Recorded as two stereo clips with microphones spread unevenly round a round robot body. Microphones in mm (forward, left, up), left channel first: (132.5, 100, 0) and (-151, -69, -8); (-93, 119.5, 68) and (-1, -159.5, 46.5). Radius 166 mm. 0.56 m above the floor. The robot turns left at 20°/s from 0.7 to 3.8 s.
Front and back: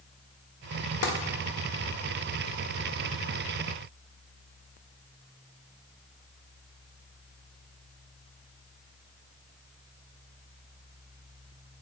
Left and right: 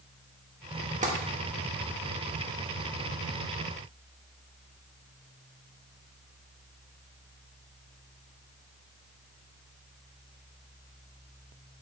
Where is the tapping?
15° right, 1.5 m.